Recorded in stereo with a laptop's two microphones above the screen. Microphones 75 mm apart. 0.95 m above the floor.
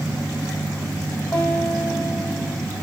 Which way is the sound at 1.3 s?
15° left (ahead or behind).